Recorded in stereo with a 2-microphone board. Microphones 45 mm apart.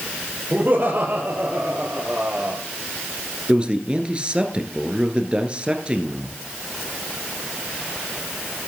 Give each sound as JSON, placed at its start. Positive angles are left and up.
{"t": 0.5, "sound": "laughter", "side_deg": -55, "distance_m": 3.0}
{"t": 3.5, "sound": "a man speaking", "side_deg": -25, "distance_m": 1.8}